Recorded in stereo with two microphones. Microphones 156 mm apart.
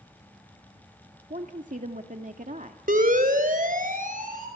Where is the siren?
60° right (ahead or behind), 4 m.